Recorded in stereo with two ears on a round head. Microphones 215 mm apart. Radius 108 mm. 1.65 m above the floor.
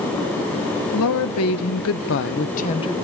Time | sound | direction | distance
0.9 | a woman speaking | 65° left (ahead or behind) | 1.4 m